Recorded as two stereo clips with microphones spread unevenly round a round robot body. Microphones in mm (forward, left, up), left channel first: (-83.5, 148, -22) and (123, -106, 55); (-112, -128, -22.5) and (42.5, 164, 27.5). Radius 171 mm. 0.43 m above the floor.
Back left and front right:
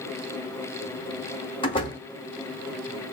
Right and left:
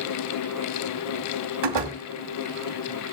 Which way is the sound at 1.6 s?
60° left.